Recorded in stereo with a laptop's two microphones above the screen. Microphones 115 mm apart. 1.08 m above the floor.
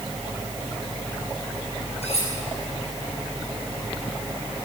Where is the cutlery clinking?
65° left (ahead or behind), 8.5 m.